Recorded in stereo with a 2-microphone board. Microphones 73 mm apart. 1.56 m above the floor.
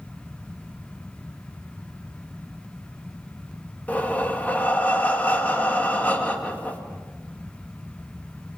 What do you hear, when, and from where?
3.9 s breathing: 25° left (ahead or behind), 2 m